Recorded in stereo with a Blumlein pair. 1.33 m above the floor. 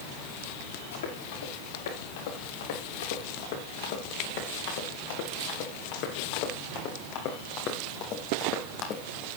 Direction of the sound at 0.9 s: 60° left.